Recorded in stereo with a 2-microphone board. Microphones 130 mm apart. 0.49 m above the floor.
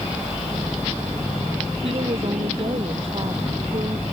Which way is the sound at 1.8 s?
45° right (ahead or behind).